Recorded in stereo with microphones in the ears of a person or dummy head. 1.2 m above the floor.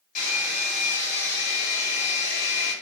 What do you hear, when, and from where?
0.1 s a hair dryer: 40° left (ahead or behind), 1.9 m